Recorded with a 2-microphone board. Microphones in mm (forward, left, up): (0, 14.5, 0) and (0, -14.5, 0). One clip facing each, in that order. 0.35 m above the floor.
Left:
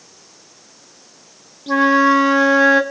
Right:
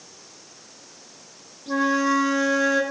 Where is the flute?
40° left (ahead or behind), 0.9 m.